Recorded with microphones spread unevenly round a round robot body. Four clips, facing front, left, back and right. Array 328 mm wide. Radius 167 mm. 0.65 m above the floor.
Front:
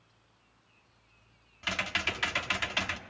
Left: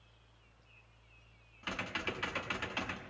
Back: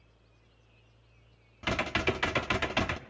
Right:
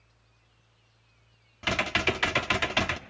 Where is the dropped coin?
I don't hear a dropped coin.